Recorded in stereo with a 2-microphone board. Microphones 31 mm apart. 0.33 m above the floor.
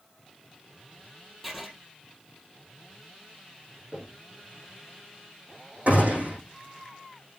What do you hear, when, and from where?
1.4 s writing: 5° right (ahead or behind), 2 m
3.9 s knocking: 30° right (ahead or behind), 5 m
5.9 s a gunshot: 55° right (ahead or behind), 5.5 m